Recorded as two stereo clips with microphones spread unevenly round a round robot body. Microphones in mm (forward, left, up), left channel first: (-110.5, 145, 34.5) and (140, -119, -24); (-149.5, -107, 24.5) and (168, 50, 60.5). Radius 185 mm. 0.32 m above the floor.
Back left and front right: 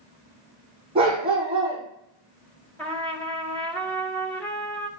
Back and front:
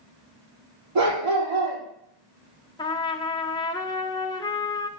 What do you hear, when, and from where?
0.9 s a dog barking: 30° left, 5.5 m
2.8 s a trumpet: 120° right, 0.9 m